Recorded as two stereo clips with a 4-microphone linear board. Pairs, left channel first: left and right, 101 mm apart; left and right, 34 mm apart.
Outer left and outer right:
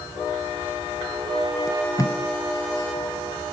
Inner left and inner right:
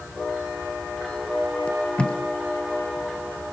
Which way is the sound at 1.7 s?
35° left (ahead or behind).